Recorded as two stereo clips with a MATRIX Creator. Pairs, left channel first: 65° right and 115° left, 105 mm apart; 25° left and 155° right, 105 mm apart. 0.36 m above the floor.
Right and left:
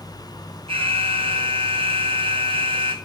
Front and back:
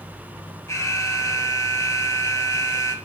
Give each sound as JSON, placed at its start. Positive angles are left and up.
{"t": 0.7, "sound": "an alarm", "azimuth_deg": 85, "distance_m": 3.0}